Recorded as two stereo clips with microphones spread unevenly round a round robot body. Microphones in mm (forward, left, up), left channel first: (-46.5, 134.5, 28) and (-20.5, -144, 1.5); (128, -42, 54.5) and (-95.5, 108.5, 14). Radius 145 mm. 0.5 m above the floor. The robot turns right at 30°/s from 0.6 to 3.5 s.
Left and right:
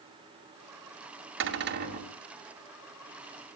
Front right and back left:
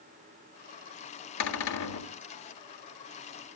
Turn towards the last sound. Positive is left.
turn(degrees=20)